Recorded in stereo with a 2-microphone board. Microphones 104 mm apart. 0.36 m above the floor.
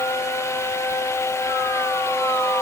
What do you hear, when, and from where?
Only background noise.